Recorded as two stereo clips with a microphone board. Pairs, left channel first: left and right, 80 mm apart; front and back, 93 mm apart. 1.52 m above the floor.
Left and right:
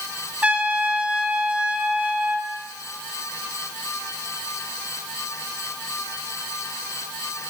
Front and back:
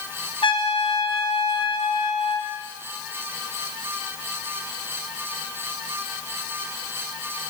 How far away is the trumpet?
About 1.1 m.